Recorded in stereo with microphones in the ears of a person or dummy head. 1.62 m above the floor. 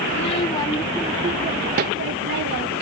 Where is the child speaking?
35° left (ahead or behind); by 2.8 s 55° right (ahead or behind).